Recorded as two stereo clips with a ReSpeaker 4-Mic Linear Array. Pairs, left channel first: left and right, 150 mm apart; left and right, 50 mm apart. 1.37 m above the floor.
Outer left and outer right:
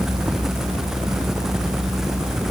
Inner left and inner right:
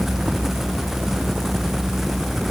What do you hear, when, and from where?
Only background noise.